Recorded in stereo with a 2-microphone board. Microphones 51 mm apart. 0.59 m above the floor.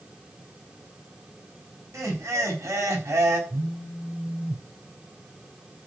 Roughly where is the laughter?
Right.